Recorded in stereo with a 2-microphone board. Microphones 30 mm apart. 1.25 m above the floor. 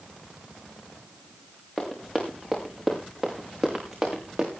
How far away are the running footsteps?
About 6 m.